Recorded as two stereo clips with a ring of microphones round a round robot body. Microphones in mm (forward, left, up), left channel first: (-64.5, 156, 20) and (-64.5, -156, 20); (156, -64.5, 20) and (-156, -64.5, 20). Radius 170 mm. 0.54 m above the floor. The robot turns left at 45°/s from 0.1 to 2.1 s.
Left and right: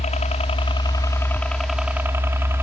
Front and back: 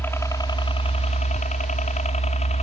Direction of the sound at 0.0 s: 70° left.